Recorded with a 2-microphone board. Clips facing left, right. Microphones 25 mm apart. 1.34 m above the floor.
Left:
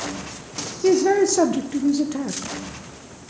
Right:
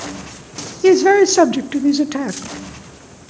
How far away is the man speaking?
About 0.6 m.